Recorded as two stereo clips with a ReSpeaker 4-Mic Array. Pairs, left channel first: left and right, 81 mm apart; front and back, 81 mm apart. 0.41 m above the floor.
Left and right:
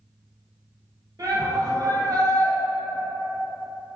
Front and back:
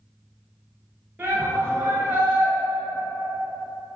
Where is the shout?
125° right, 2 m.